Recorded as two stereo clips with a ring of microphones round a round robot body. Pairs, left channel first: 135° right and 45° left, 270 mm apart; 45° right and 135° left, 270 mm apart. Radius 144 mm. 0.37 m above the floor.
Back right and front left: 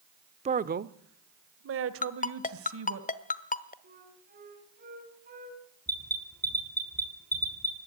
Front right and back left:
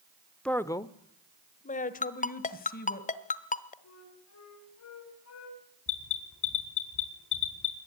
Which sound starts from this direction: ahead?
A flute, at 3.8 s.